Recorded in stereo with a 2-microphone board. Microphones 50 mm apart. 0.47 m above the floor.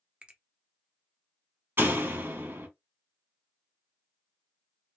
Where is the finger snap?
25° right (ahead or behind), 0.7 m.